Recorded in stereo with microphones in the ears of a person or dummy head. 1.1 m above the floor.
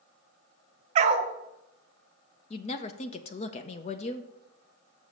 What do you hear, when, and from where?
0.9 s a dog barking: 40° right (ahead or behind), 0.9 m
2.5 s a woman speaking: 30° left (ahead or behind), 0.6 m